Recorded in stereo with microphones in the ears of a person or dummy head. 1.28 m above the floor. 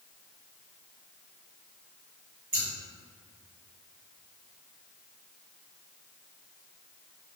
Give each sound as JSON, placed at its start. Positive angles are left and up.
{"t": 2.5, "sound": "scissors", "side_deg": -35, "distance_m": 1.9}